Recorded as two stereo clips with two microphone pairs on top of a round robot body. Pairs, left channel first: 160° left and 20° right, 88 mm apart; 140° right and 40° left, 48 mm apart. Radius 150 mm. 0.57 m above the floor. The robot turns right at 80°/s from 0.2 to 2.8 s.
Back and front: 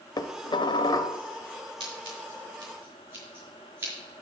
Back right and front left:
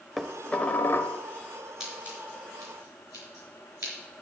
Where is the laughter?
I don't hear laughter.